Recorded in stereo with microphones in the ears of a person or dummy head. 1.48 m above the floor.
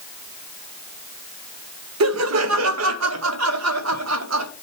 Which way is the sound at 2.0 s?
80° right.